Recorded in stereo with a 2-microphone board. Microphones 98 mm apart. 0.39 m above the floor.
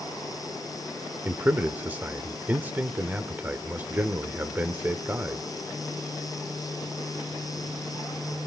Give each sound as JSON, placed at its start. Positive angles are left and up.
{"t": 1.2, "sound": "a man speaking", "side_deg": -20, "distance_m": 0.9}